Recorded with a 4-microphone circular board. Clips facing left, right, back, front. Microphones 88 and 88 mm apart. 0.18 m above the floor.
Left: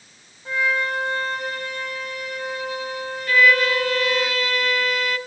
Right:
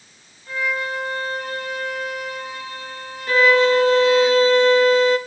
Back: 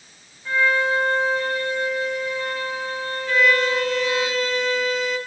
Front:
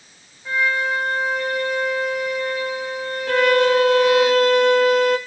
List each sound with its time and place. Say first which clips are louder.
0.5 s a violin: left 2 dB, back 1 dB; 75° left, 6.5 m
3.3 s a violin: right 3 dB, front 4 dB; 30° right, 0.9 m